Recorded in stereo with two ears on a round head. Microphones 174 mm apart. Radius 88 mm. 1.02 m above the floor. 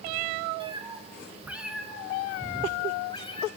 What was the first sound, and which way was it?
A cat meowing, 25° right (ahead or behind).